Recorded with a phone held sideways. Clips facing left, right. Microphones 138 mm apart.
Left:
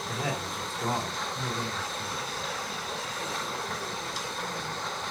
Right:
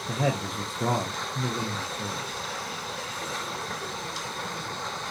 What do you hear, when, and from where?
0.1 s a man speaking: 60° right (ahead or behind), 0.5 m